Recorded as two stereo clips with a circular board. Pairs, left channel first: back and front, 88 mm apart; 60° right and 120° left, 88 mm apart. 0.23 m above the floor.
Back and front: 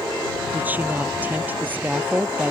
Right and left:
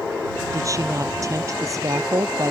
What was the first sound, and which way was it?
A woman speaking, 70° left.